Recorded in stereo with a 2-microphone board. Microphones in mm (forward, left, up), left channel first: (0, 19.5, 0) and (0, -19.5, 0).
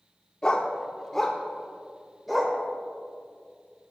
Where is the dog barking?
25° left (ahead or behind), 1.0 m; by 2.6 s centre (ahead or behind), 1.8 m.